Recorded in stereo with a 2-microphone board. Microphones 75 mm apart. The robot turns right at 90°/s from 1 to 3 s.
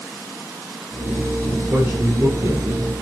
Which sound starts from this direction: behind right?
A man speaking, at 1.7 s.